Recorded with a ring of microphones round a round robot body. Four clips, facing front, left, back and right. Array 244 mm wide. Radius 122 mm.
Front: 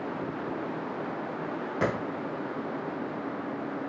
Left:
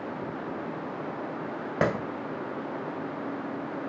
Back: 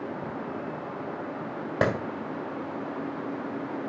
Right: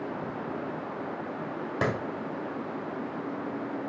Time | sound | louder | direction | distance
1.8 | a clap | left 3 dB, back 4 dB | 135° left | 3 m